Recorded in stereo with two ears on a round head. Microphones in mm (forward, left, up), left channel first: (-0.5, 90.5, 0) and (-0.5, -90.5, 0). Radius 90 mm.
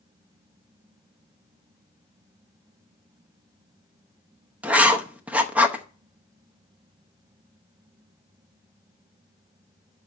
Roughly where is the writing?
Centre.